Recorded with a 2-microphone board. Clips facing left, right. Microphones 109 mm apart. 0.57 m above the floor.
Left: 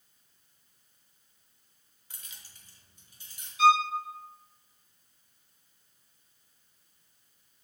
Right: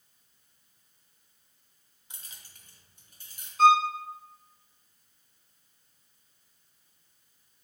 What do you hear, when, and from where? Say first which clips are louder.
2.1 s keys jangling: right 1 dB; 20° right (ahead or behind), 0.6 m; by 3.5 s 50° right (ahead or behind), 1.9 m
3.6 s a violin: right 2 dB; 45° right (ahead or behind), 0.5 m